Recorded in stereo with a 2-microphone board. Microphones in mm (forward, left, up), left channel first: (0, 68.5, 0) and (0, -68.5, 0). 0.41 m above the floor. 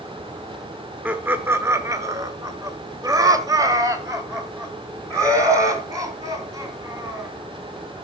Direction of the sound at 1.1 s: 10° right (ahead or behind).